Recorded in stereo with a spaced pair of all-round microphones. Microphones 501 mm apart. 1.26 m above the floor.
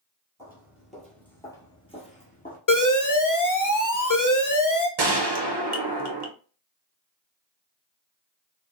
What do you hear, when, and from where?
0.4 s footsteps: 5° right (ahead or behind), 1.4 m; by 2.6 s 15° left (ahead or behind), 1.4 m
2.7 s an alarm: 40° left (ahead or behind), 0.7 m
5.0 s a gunshot: 55° right (ahead or behind), 0.7 m